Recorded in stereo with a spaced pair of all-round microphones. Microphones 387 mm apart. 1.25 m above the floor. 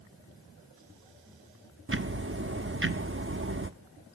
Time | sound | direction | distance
1.9 | ticking | 30° right (ahead or behind) | 0.9 m